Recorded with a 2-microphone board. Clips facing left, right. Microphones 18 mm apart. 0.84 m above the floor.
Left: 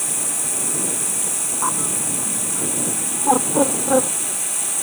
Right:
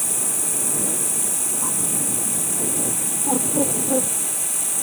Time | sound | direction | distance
0.0 | running water | 20° left (ahead or behind) | ?
1.6 | a bird | 75° left (ahead or behind) | ?